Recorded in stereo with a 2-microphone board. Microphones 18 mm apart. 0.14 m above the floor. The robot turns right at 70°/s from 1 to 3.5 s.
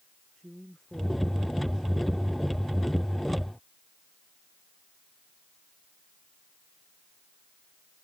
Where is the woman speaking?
160° left; by 1.9 s 135° right.